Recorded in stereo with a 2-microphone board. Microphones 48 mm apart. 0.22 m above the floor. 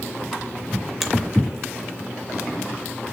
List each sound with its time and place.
1.0 s a finger snap: 5° left (ahead or behind), 1.6 m